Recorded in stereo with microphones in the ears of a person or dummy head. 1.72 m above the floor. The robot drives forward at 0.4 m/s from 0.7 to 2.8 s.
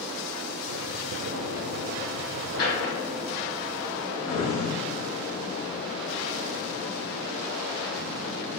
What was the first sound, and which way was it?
A drawer, 55° left (ahead or behind).